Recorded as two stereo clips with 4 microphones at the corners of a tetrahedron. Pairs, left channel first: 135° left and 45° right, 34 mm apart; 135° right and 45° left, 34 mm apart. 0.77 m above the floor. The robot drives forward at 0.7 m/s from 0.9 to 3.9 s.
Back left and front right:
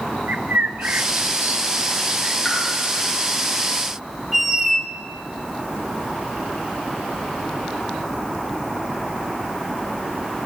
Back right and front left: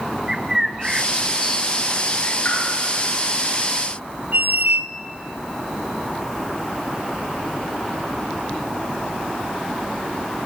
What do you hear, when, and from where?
0.3 s a bird: 35° right, 1.1 m; by 2.4 s 110° right, 0.7 m
2.5 s a pop: 145° right, 7.5 m
4.3 s a squeak: 30° left, 1.7 m